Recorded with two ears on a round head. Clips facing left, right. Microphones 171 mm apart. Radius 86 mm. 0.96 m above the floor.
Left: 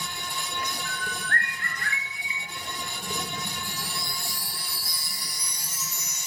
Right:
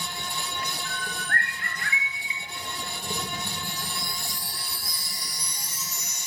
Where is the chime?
80° left, 3 m.